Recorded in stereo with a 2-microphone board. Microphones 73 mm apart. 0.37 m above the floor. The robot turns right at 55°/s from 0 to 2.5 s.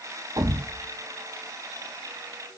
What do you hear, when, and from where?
0.4 s a thud: 55° right (ahead or behind), 1.0 m; by 2.6 s 55° left (ahead or behind), 1.0 m